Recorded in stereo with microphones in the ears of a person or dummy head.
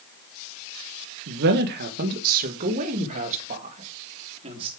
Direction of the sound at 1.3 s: 60° right (ahead or behind).